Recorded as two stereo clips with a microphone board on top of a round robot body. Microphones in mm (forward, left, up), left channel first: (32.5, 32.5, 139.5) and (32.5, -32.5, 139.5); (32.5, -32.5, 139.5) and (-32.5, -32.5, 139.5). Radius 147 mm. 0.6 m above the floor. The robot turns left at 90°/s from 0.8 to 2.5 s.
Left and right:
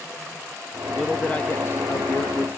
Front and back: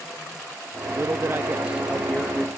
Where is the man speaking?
Straight behind; by 2.5 s 45° left.